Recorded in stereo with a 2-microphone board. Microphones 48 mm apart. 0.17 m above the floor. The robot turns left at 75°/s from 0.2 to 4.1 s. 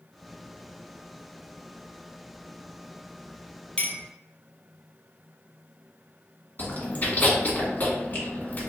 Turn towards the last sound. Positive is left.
turn(degrees=35)  # may be behind; listen again after turning